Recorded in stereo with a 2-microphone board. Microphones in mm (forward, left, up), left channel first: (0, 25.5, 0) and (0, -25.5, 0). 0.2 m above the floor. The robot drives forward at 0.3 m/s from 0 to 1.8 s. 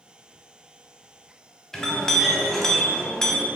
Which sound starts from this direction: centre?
A clink, at 1.7 s.